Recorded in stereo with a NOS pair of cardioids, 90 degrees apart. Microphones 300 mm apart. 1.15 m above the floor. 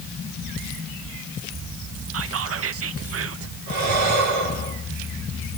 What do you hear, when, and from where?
2.1 s whispering: 50° right, 1.3 m
3.7 s breathing: 65° right, 5 m